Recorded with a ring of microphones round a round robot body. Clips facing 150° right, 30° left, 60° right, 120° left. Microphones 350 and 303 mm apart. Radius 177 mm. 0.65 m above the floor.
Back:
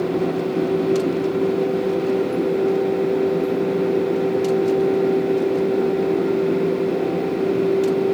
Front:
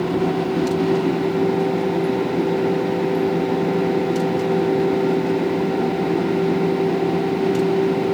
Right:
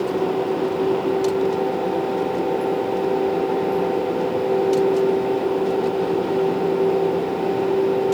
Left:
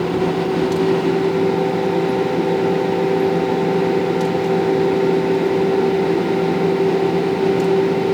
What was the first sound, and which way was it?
Only background noise.